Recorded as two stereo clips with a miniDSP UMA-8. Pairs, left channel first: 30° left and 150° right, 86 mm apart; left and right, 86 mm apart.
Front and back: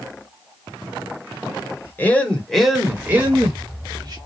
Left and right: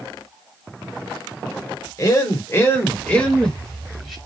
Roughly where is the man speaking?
Left.